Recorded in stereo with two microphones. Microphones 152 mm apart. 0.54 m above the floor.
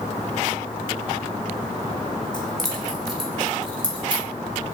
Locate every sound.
2.3 s keys jangling: 5° left (ahead or behind), 3.5 m; by 4.2 s 10° right (ahead or behind), 4.5 m